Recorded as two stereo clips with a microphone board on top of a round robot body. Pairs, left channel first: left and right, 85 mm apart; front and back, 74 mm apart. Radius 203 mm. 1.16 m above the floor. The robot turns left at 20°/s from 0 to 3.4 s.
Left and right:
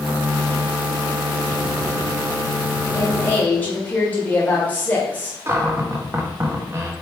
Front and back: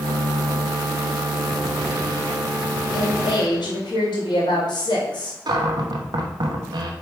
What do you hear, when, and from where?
2.9 s a woman speaking: 25° left, 2 m; by 5.4 s 20° left, 2 m
5.5 s a cupboard door: 155° right, 0.8 m